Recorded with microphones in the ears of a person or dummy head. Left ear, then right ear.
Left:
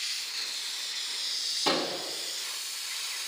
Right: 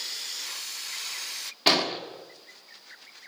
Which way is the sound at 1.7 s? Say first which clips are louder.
Right 8 dB; 40° right (ahead or behind).